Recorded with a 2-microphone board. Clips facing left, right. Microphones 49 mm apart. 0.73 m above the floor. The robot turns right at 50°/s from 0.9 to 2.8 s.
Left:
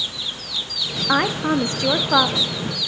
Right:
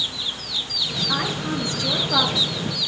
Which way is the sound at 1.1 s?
85° left.